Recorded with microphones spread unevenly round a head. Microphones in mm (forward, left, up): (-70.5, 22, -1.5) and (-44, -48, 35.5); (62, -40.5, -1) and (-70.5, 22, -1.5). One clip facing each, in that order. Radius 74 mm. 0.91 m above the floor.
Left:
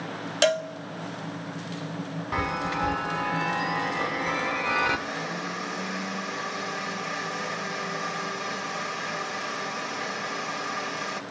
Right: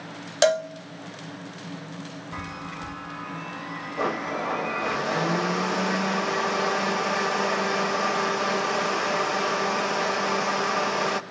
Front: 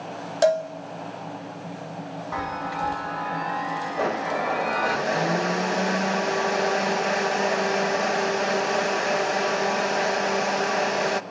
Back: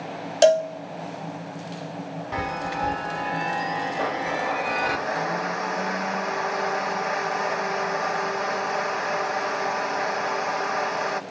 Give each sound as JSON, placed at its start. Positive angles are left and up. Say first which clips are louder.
{"t": 0.4, "sound": "a cowbell", "louder": "right 3 dB, back 3 dB", "azimuth_deg": -155, "distance_m": 0.7}
{"t": 2.3, "sound": "a chime", "louder": "left 10 dB, back 1 dB", "azimuth_deg": 90, "distance_m": 0.9}
{"t": 4.0, "sound": "a blender", "louder": "right 1 dB, front 5 dB", "azimuth_deg": -50, "distance_m": 0.9}